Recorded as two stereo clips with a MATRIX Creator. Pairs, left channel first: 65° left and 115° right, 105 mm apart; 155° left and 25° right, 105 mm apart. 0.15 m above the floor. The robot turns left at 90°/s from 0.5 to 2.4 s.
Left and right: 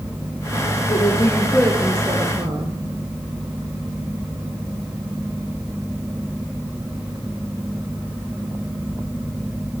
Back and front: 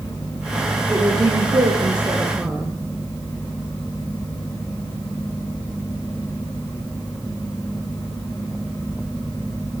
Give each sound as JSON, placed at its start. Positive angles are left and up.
{"t": 0.9, "sound": "a woman speaking", "azimuth_deg": 45, "distance_m": 2.5}